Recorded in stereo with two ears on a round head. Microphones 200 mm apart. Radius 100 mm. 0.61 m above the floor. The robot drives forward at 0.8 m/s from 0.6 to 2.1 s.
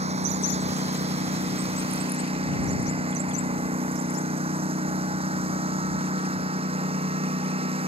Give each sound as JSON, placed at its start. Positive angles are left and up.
{"t": 0.0, "sound": "a lawn mower", "side_deg": -30}